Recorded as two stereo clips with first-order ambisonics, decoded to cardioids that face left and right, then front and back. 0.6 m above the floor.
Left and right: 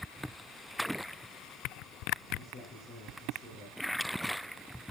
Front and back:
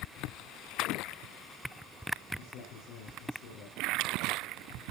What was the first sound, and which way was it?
A man speaking, 25° left.